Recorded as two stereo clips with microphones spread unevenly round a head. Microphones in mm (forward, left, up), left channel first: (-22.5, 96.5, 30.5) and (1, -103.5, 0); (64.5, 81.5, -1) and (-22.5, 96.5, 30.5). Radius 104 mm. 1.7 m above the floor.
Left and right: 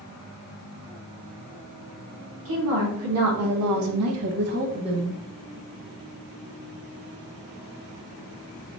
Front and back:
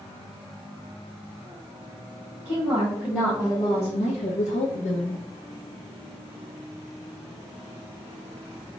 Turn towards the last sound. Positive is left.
turn(degrees=-5)